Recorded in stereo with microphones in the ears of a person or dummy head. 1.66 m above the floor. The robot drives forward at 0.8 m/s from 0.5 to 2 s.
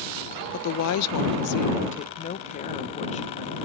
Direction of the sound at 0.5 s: 50° left (ahead or behind).